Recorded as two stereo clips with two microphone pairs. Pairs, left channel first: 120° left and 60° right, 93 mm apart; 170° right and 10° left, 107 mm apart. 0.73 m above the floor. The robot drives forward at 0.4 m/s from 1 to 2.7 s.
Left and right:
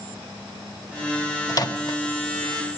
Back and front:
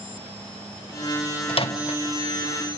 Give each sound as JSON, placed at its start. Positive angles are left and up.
{"t": 1.5, "sound": "a microwave", "azimuth_deg": 165, "distance_m": 0.6}